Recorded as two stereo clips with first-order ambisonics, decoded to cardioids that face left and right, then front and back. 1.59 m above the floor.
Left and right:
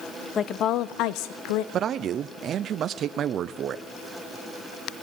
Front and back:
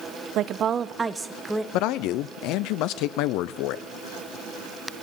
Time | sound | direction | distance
0.3 | a woman speaking | 150° left | 0.6 m
1.7 | a man speaking | 30° right | 0.6 m